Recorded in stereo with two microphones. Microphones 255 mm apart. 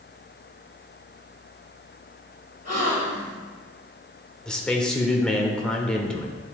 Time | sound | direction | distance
2.6 | a gasp | 90° right | 2.5 m
4.5 | a man speaking | 5° left (ahead or behind) | 1.0 m